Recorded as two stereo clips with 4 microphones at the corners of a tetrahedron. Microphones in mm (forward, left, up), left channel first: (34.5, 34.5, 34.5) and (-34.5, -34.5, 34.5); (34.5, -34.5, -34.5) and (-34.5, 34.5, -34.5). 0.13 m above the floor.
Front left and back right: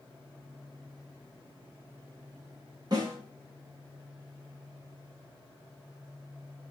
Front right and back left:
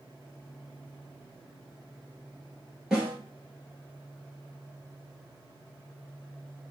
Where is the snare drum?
145° right, 1.3 m.